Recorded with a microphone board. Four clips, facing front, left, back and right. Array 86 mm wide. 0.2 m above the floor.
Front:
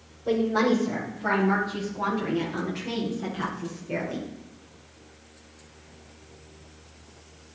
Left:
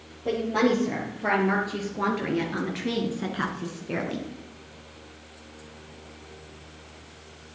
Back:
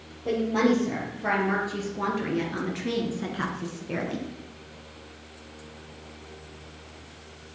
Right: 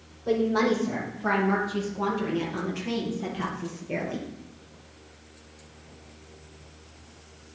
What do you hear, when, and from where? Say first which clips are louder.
0.2 s a woman speaking: even, even; 110° left, 4.5 m; by 4.3 s 115° left, 1.9 m